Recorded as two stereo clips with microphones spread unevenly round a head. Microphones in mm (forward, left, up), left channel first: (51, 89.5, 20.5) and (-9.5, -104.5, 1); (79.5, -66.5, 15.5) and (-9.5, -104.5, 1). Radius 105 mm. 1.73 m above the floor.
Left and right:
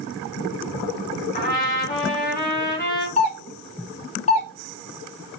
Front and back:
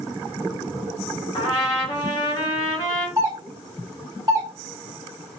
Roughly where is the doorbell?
Behind left.